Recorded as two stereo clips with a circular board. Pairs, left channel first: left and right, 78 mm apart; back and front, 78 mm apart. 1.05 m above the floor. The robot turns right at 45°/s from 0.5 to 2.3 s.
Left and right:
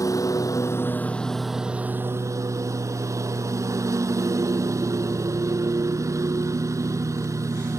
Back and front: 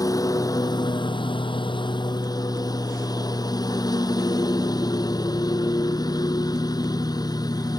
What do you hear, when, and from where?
0.0 s a lawn mower: 135° left; by 7.8 s 140° right